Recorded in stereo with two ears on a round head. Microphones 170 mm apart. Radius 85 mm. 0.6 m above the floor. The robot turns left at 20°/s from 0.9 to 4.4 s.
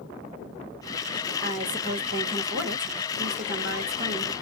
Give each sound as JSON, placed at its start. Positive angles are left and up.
{"t": 1.4, "sound": "a woman speaking", "azimuth_deg": -45, "distance_m": 1.8}